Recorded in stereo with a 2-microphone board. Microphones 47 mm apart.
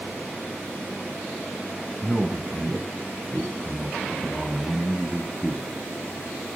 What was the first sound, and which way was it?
A man speaking, centre (ahead or behind).